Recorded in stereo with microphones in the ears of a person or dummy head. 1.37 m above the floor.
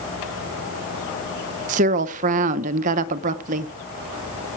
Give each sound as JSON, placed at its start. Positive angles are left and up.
{"t": 1.7, "sound": "a woman speaking", "side_deg": -45, "distance_m": 0.9}